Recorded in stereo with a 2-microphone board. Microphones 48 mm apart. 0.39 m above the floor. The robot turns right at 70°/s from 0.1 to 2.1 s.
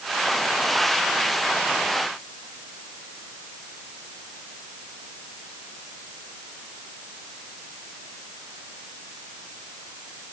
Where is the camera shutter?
No camera shutter in this recording.